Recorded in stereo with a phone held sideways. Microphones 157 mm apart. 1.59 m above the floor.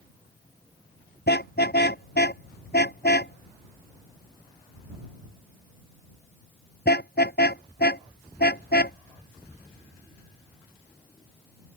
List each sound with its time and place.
1.3 s a car horn: 80° left; by 9.0 s 75° left (ahead or behind)